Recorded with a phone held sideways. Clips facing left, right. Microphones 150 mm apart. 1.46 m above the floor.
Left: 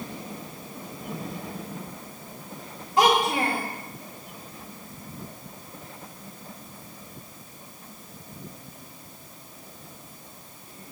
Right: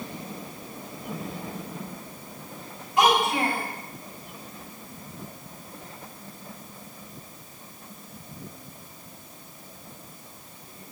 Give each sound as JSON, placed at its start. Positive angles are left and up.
{"t": 3.0, "sound": "a child speaking", "side_deg": 35, "distance_m": 2.5}